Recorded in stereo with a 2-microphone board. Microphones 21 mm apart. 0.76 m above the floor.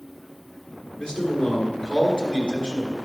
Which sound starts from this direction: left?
A man speaking, at 1.0 s.